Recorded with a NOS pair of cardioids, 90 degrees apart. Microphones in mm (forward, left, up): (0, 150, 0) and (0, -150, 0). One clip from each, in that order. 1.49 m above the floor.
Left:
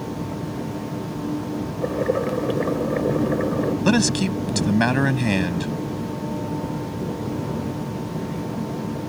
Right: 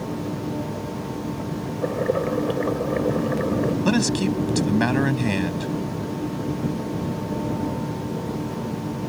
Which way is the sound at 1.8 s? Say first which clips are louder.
Even; 5° left.